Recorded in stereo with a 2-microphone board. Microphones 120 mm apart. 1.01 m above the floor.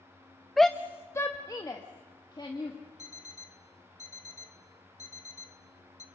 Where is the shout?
Centre (ahead or behind), 0.5 m; by 2.8 s 40° left (ahead or behind), 1.8 m.